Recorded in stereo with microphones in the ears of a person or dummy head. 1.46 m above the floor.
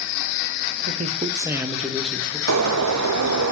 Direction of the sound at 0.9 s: 45° right (ahead or behind).